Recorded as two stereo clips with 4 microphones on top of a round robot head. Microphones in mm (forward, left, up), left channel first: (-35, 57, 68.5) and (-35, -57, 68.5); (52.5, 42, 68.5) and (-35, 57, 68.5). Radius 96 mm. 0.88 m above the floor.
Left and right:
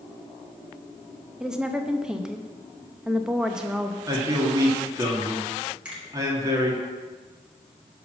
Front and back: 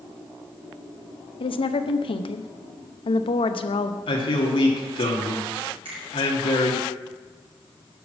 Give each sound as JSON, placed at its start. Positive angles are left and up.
{"t": 1.4, "sound": "a woman speaking", "azimuth_deg": -5, "distance_m": 0.8}
{"t": 4.1, "sound": "a man speaking", "azimuth_deg": -25, "distance_m": 2.0}
{"t": 5.8, "sound": "a finger snap", "azimuth_deg": -170, "distance_m": 4.0}